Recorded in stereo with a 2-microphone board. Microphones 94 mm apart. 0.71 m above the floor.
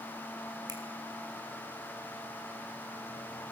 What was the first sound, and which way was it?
A finger snap, 50° right (ahead or behind).